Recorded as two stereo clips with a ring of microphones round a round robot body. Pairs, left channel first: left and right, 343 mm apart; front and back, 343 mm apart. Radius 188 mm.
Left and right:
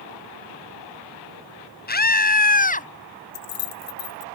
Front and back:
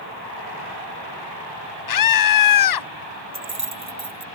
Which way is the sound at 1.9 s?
25° left.